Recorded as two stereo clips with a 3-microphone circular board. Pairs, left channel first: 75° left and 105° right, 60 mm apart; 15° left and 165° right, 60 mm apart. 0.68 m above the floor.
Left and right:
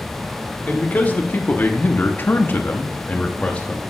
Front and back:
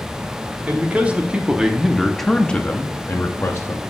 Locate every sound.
0.7 s a man speaking: 135° left, 1.4 m; by 3.8 s 5° left, 1.0 m